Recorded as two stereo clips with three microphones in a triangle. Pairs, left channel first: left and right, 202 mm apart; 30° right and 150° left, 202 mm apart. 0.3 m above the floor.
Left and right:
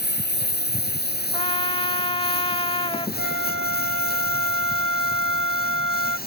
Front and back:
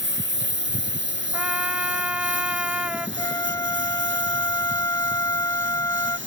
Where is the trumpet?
70° left.